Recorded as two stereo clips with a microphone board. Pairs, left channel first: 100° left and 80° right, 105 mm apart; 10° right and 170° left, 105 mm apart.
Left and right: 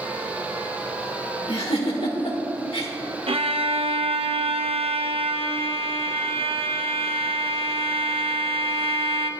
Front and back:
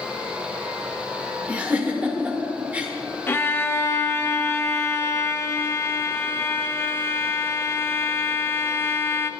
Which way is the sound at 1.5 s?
95° left.